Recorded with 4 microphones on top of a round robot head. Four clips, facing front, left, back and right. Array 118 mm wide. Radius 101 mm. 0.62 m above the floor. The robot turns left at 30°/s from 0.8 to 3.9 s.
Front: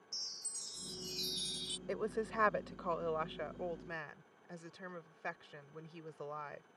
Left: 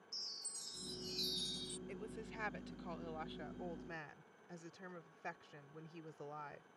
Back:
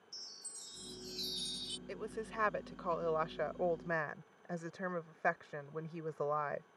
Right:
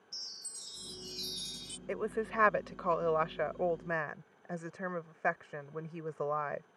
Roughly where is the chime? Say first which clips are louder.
Right 1 dB, front 2 dB; ahead right.